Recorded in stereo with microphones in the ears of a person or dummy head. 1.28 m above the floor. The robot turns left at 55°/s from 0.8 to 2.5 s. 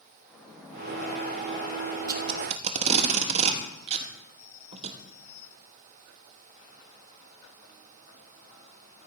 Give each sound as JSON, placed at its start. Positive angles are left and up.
{"t": 0.2, "sound": "a splash", "azimuth_deg": 180, "distance_m": 3.5}
{"t": 2.1, "sound": "tape being pulled", "side_deg": -10, "distance_m": 0.9}